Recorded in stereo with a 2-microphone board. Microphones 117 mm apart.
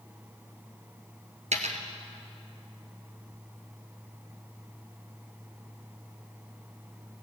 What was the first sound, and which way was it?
A dropped coin, 85° right.